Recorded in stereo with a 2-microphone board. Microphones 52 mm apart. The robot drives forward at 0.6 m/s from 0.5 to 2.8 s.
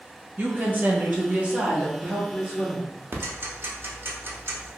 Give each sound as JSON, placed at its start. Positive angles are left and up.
{"t": 0.4, "sound": "a woman speaking", "side_deg": -35, "distance_m": 0.7}
{"t": 3.1, "sound": "ticking", "side_deg": -45, "distance_m": 0.6}